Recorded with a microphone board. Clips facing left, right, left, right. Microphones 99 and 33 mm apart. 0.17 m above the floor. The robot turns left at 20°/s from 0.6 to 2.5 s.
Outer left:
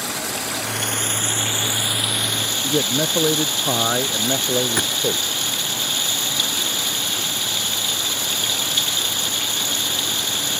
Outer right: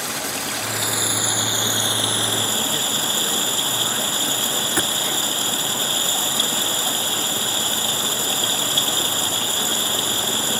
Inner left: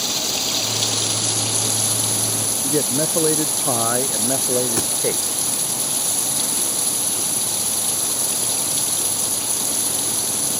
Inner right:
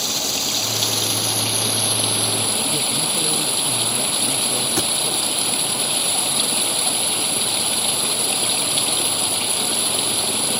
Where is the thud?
5° right (ahead or behind).